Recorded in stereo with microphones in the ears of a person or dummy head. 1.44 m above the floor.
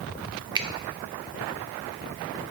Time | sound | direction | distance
0.6 | a finger snap | 20° right (ahead or behind) | 0.6 m